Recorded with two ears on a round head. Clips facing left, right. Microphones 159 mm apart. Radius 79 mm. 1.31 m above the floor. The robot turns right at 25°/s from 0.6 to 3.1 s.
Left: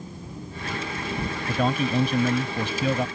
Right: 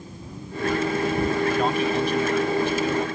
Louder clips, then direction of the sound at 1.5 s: Right 2 dB; 80° left.